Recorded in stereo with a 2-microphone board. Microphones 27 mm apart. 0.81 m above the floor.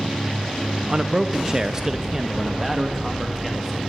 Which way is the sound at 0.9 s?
30° right (ahead or behind).